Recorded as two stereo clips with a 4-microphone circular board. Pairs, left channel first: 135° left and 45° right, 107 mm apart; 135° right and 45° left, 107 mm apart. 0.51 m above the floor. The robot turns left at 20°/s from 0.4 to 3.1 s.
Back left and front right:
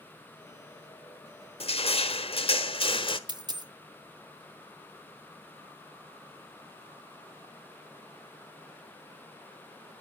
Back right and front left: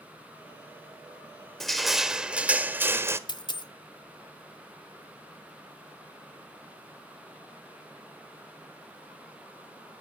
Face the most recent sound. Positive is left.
turn(degrees=-90)